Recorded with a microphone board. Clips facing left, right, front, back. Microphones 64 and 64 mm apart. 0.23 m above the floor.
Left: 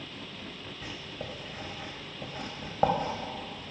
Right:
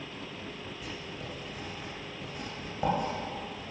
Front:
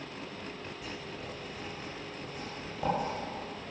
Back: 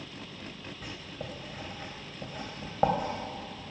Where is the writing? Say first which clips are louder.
Left 3 dB, back 2 dB; 135° left, 2.5 m.